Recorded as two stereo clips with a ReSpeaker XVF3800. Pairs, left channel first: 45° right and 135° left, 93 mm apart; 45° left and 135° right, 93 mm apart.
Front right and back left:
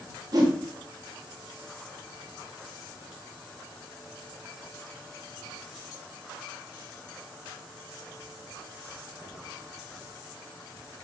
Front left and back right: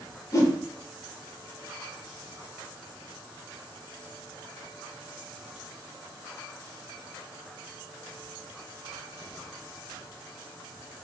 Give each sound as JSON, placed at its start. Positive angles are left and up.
{"t": 0.3, "sound": "a whoosh", "azimuth_deg": 95, "distance_m": 0.7}